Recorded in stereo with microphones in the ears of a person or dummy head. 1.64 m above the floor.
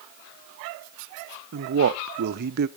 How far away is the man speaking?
About 0.5 m.